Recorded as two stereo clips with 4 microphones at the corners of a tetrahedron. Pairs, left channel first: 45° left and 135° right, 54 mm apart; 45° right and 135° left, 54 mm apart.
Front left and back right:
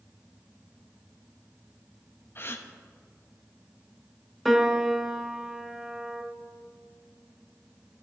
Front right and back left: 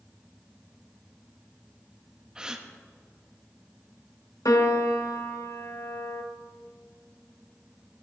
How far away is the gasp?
About 0.9 m.